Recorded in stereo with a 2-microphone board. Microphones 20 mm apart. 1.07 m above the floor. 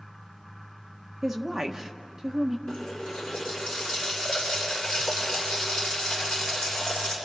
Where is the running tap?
40° left (ahead or behind), 7.5 m.